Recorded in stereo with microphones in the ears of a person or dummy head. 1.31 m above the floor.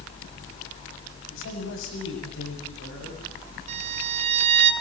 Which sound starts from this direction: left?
A man speaking, at 1.3 s.